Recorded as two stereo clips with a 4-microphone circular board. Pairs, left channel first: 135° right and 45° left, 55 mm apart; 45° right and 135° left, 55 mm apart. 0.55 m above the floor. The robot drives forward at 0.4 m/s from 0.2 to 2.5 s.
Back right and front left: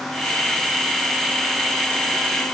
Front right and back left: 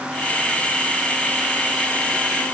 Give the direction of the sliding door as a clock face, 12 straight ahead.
No sliding door in this recording.